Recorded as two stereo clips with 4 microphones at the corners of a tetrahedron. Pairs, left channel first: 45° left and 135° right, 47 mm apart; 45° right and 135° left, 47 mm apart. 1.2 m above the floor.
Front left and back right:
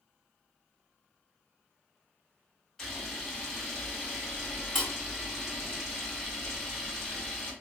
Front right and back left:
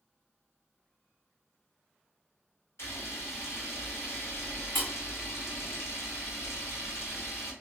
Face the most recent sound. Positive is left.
turn(degrees=-30)